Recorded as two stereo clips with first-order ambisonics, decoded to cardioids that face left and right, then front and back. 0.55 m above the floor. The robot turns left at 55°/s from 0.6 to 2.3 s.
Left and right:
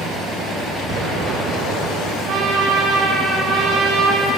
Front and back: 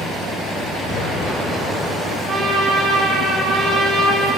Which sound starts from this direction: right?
A trumpet, at 2.3 s.